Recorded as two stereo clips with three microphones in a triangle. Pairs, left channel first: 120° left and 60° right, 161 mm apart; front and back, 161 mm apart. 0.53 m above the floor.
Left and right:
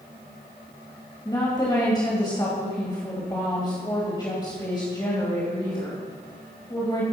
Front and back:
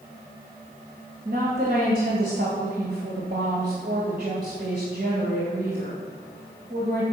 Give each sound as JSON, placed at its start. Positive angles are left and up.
{"t": 1.2, "sound": "a woman speaking", "azimuth_deg": 180, "distance_m": 2.5}